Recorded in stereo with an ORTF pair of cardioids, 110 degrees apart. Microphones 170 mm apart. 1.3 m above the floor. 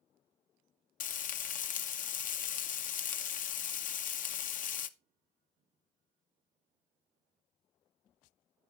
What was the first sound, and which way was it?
Frying, 55° left.